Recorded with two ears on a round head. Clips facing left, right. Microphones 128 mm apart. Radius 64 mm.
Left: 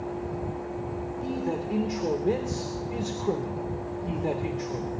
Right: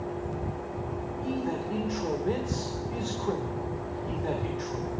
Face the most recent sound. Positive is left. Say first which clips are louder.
# left 1 dB
turn(degrees=20)  # may be behind; listen again after turning